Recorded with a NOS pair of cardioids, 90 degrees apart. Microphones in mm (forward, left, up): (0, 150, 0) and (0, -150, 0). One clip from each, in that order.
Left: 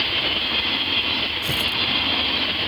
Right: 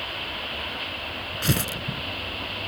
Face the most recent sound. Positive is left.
turn(degrees=-65)